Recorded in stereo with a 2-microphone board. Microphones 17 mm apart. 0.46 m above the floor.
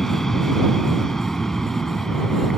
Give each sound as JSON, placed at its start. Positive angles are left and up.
{"t": 0.0, "sound": "an aircraft", "side_deg": 30}